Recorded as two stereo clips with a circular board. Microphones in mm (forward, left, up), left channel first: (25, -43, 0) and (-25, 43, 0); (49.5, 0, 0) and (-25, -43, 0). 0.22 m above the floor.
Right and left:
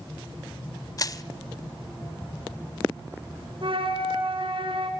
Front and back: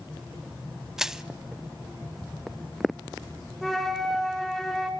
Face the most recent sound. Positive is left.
turn(degrees=115)